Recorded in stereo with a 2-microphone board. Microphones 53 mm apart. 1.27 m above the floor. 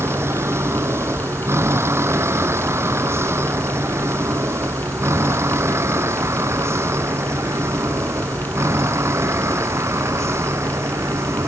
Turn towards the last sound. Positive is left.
turn(degrees=-55)  # may be behind; listen again after turning